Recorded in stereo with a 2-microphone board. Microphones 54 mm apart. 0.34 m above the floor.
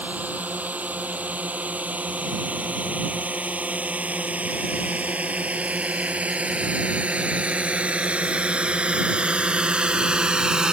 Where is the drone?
30° right (ahead or behind); by 10.7 s 15° right (ahead or behind).